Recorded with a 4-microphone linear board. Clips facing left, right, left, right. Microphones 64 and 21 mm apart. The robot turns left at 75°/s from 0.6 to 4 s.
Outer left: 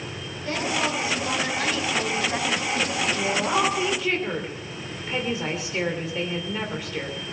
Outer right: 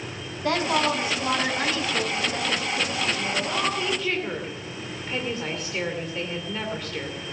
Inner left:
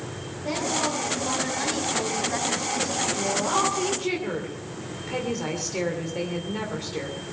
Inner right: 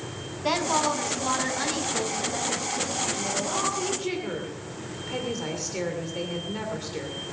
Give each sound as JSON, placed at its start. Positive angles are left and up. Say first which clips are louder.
{"t": 0.4, "sound": "a woman speaking", "louder": "outer right 3 dB, inner right 2 dB", "azimuth_deg": -100, "distance_m": 4.5}
{"t": 3.1, "sound": "a woman speaking", "louder": "outer left 4 dB, inner left 4 dB", "azimuth_deg": 70, "distance_m": 2.5}